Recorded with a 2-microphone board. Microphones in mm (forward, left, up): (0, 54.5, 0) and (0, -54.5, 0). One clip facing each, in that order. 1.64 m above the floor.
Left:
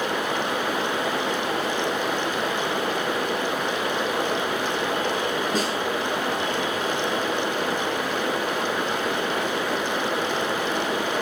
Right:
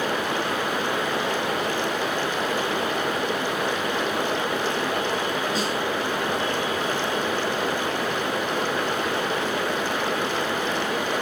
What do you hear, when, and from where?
5.5 s a snare drum: 45° left (ahead or behind), 8.5 m